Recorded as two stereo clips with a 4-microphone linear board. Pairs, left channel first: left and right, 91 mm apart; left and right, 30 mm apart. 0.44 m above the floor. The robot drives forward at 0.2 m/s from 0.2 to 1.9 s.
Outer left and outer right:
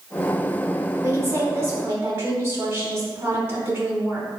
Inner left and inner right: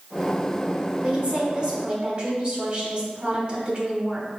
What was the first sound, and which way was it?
A woman speaking, 30° right (ahead or behind).